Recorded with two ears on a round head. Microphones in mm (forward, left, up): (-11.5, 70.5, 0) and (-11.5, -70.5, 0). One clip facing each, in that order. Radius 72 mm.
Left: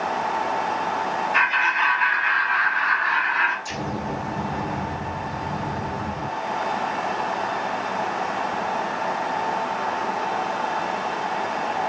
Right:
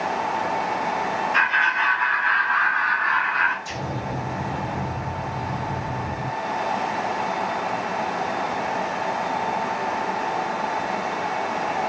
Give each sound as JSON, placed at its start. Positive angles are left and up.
{"t": 1.3, "sound": "laughter", "side_deg": 10, "distance_m": 1.6}
{"t": 3.6, "sound": "an explosion", "side_deg": 50, "distance_m": 2.0}